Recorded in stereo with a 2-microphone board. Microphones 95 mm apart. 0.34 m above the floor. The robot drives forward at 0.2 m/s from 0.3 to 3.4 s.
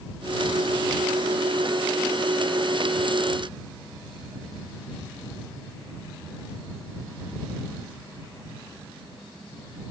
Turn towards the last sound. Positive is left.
No sound to turn to.